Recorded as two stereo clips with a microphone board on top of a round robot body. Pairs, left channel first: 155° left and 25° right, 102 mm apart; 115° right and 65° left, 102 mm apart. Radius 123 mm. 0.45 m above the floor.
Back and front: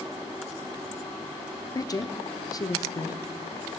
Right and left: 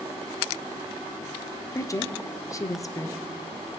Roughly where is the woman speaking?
Behind.